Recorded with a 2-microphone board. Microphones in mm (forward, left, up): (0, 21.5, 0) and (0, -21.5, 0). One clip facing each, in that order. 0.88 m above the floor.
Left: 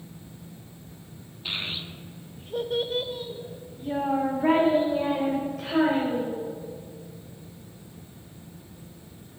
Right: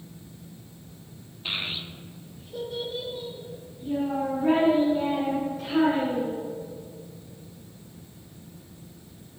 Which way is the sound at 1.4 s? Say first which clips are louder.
Right 1 dB; 15° right (ahead or behind).